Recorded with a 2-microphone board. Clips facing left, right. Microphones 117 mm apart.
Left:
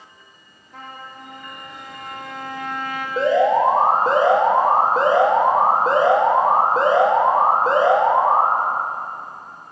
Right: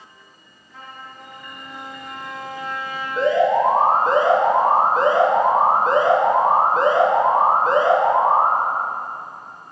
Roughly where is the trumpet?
Left.